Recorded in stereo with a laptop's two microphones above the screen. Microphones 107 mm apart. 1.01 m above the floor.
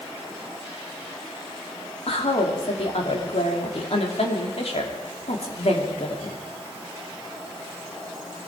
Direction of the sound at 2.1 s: 65° left (ahead or behind).